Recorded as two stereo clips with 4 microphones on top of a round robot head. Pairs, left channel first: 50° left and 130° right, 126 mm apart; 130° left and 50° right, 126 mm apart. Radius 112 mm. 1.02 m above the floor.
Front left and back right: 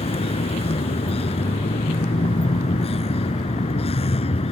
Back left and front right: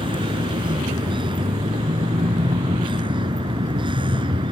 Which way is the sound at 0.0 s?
5° left.